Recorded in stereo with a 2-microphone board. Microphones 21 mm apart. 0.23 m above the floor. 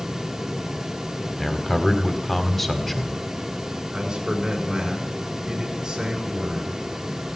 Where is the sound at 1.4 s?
10° left (ahead or behind), 1.3 m.